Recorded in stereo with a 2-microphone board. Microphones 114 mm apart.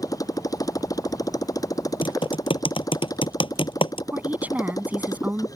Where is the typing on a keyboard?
50° left (ahead or behind).